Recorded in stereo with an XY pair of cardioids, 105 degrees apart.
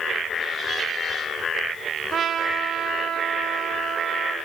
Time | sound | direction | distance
2.1 | a trumpet | 55° right | 0.6 m